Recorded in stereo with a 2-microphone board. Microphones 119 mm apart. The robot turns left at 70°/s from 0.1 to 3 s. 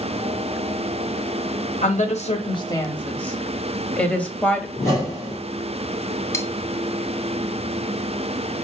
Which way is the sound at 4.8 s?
25° left (ahead or behind).